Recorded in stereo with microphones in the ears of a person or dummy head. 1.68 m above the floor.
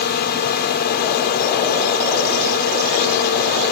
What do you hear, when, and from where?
0.0 s a drone: 55° left (ahead or behind)